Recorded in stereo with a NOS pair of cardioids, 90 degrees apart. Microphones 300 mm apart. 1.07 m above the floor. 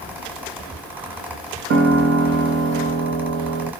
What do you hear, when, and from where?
0.0 s a fan: 5° right, 1.0 m
1.7 s a piano: 50° right, 0.8 m